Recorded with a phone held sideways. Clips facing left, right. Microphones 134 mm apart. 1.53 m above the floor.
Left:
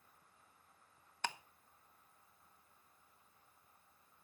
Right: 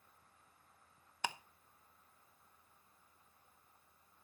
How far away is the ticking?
About 0.7 m.